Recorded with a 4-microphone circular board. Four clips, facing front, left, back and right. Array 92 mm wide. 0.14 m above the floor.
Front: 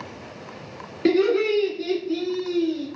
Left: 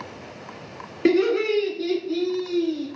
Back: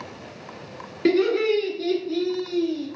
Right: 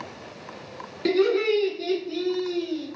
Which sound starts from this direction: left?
Laughter, at 1.1 s.